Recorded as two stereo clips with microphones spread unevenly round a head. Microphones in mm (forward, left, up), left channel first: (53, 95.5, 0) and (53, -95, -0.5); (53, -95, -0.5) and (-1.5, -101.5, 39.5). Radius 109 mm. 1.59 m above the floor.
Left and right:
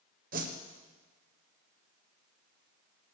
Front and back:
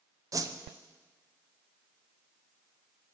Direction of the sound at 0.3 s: 145° right.